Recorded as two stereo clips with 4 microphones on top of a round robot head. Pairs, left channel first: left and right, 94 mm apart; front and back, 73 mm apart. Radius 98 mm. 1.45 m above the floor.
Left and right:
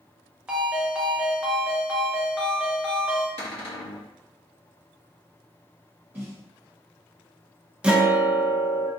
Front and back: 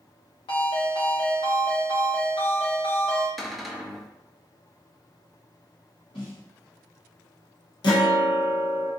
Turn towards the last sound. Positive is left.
turn(degrees=-10)